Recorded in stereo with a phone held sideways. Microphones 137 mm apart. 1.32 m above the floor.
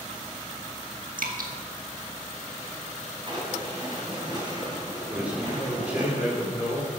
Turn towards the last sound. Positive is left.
turn(degrees=-10)  # may be behind; listen again after turning